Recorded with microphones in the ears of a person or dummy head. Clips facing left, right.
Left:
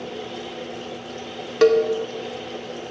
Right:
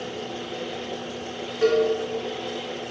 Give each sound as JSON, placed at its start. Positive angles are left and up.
{"t": 1.6, "sound": "a cowbell", "side_deg": 80, "distance_m": 0.7}